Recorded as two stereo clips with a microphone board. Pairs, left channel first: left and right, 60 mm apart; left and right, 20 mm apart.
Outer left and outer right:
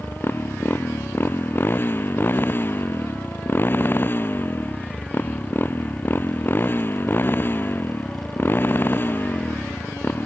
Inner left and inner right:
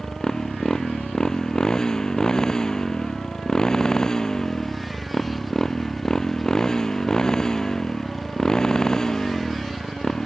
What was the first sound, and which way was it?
A motorcycle, 35° left (ahead or behind).